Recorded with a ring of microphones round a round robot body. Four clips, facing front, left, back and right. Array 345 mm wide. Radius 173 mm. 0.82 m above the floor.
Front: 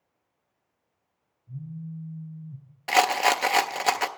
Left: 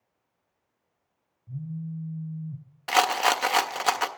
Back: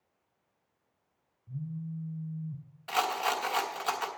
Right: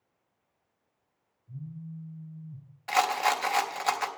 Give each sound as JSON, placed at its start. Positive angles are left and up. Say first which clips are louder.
{"t": 1.5, "sound": "a phone buzzing", "louder": "left 7 dB, even", "azimuth_deg": 110, "distance_m": 1.7}
{"t": 2.9, "sound": "a rattle", "louder": "left 3 dB, front 8 dB", "azimuth_deg": 30, "distance_m": 0.6}